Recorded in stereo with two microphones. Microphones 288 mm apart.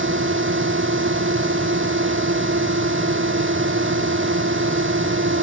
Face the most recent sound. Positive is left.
turn(degrees=-45)  # may be behind; listen again after turning